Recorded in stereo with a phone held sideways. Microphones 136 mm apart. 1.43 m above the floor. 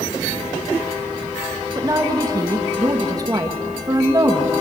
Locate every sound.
1.8 s a woman speaking: 30° right (ahead or behind), 2.0 m